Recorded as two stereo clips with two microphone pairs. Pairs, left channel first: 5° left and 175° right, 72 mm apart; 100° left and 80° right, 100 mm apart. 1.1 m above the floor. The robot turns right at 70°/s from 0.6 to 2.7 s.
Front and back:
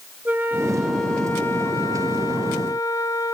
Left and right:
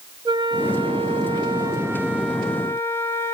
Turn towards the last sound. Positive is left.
turn(degrees=35)